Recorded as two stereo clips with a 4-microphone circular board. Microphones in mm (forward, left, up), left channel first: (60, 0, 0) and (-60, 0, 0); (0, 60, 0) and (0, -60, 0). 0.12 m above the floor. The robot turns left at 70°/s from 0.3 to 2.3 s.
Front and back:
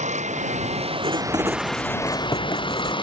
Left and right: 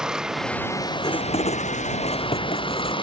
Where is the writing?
150° left; by 2.9 s 60° left.